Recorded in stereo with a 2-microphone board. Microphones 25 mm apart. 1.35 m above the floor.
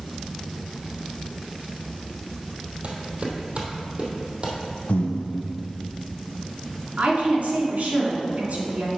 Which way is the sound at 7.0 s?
65° right (ahead or behind).